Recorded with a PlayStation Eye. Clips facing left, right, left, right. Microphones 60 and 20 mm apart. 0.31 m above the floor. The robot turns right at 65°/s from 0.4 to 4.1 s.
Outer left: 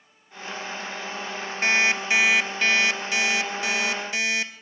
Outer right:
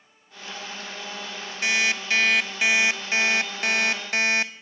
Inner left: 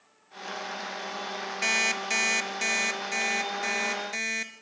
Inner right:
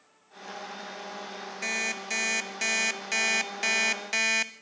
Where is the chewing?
I don't hear chewing.